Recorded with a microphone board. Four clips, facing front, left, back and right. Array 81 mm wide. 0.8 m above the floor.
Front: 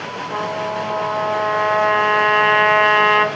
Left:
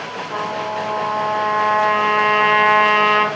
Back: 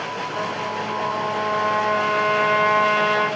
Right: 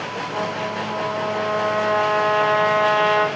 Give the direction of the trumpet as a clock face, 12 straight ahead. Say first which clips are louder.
Left 3 dB, front 6 dB; 11 o'clock.